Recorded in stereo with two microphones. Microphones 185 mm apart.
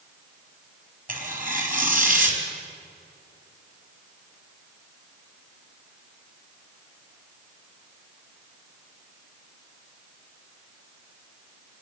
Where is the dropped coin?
No dropped coin in this recording.